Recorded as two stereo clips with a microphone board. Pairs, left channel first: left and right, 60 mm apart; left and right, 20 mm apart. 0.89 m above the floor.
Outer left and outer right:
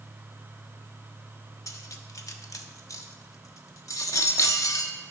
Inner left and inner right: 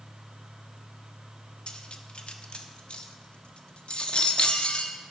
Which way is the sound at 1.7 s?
65° left (ahead or behind).